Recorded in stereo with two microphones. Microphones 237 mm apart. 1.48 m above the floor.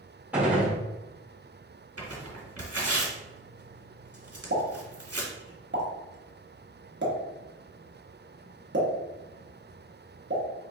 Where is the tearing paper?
85° right, 1.2 m.